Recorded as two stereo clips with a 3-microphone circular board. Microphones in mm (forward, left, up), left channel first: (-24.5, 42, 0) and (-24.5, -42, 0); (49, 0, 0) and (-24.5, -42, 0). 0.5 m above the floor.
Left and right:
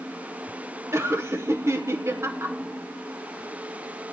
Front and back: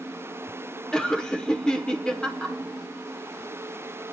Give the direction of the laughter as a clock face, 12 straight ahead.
2 o'clock.